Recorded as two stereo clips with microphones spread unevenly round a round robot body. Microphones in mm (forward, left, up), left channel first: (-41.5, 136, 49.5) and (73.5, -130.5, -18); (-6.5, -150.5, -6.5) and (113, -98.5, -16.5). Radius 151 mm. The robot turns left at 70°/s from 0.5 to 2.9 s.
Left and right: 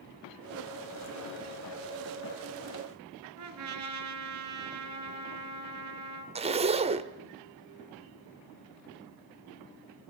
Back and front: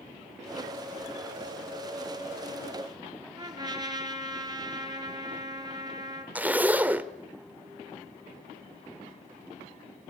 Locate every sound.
3.4 s a trumpet: 35° right, 3.5 m
6.3 s a zipper: 40° right, 1.3 m